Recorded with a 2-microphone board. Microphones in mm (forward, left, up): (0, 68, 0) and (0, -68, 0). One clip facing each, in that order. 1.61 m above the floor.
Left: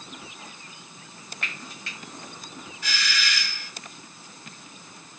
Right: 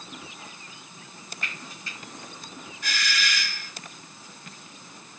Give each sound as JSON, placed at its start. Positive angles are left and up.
{"t": 1.4, "sound": "frying", "side_deg": 70, "distance_m": 0.7}
{"t": 2.8, "sound": "a doorbell", "side_deg": -50, "distance_m": 0.6}